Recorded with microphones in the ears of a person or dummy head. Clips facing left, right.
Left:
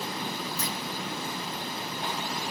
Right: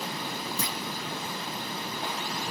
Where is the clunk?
70° right (ahead or behind), 1.1 m.